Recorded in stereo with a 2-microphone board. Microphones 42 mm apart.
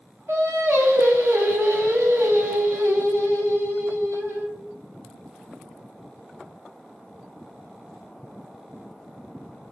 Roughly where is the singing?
Right.